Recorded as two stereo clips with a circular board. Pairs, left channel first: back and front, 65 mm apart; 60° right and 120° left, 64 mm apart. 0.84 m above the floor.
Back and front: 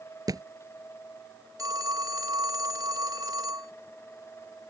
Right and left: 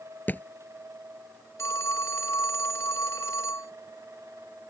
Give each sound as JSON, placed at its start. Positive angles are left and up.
{"t": 0.3, "sound": "a thud", "azimuth_deg": 0}
{"t": 1.6, "sound": "a phone ringing", "azimuth_deg": -20}